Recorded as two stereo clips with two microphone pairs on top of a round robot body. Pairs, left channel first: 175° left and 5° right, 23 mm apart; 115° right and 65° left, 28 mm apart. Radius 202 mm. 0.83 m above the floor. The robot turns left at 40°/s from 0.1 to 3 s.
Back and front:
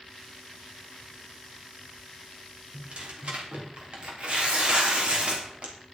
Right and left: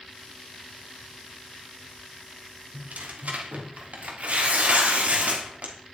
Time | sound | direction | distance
2.7 | tearing paper | 50° left | 3 m